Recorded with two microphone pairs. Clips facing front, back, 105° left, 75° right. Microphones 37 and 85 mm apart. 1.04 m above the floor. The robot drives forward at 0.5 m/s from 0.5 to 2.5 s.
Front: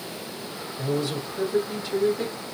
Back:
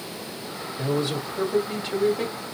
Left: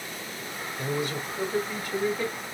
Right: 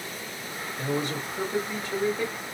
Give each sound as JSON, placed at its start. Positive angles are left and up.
{"t": 0.8, "sound": "a man speaking", "azimuth_deg": -125, "distance_m": 2.5}